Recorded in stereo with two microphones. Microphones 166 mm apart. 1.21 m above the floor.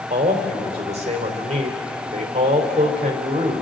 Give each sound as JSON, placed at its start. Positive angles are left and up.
{"t": 0.1, "sound": "a man speaking", "side_deg": -40, "distance_m": 3.5}